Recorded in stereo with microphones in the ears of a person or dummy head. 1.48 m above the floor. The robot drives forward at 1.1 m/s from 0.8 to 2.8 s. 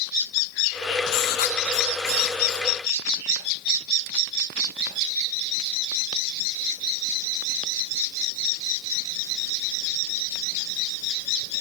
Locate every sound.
1.1 s writing: 60° left (ahead or behind), 0.9 m; by 2.7 s 20° left (ahead or behind), 2.5 m